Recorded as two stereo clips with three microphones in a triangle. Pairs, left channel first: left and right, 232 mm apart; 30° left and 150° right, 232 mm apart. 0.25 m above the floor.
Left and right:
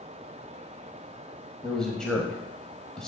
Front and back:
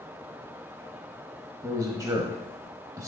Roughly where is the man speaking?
Behind.